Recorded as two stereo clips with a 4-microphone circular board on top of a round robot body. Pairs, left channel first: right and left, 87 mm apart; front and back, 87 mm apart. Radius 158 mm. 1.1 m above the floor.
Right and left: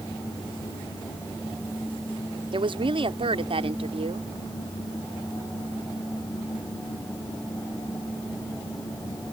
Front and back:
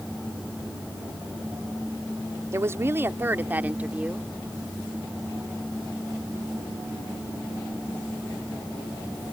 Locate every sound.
2.5 s a woman speaking: 120° left; by 4.3 s 100° left